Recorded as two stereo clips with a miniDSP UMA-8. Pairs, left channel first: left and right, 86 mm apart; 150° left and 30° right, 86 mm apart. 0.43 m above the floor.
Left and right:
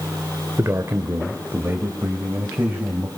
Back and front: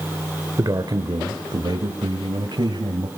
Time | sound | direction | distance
0.6 | a man speaking | 50° right | 1.3 m